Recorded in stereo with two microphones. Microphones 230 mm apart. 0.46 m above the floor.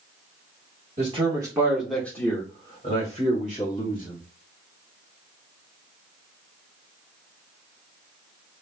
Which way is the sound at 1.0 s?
30° right (ahead or behind).